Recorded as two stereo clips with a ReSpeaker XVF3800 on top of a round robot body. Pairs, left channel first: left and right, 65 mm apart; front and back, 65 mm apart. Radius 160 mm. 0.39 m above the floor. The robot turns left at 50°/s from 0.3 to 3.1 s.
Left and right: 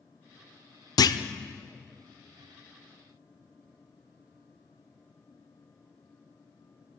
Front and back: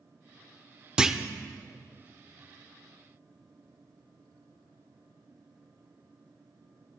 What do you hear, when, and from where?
1.0 s a clunk: 105° left, 0.5 m; by 1.2 s 90° left, 0.5 m